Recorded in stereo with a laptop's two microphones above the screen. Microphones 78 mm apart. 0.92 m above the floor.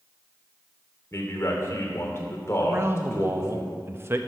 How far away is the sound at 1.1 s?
About 2.5 m.